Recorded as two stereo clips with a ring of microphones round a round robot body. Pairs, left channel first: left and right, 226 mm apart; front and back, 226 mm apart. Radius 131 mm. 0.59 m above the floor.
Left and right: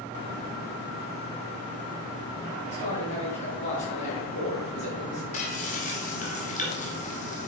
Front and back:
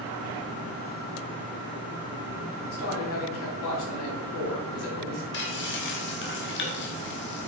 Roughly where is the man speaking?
Ahead left.